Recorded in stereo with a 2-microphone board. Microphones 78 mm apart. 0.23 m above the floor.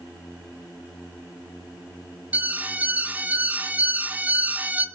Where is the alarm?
20° right (ahead or behind), 1.4 m.